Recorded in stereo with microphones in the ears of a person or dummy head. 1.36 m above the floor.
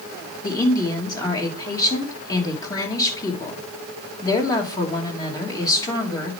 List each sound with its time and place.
0.4 s a woman speaking: 20° left (ahead or behind), 2.5 m